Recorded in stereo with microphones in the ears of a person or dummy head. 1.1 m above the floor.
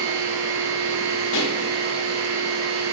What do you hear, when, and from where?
0.0 s a machine running: 60° right (ahead or behind), 1.3 m
1.3 s a pop: 65° left (ahead or behind), 1.0 m